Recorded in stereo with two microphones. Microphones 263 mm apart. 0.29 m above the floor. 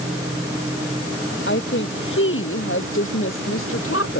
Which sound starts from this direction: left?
A woman speaking, at 1.5 s.